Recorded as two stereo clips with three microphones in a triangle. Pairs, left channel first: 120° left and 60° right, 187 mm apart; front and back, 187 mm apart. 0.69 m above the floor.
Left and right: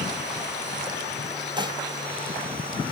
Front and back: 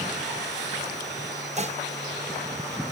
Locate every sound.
1.6 s dishes clattering: 125° right, 1.3 m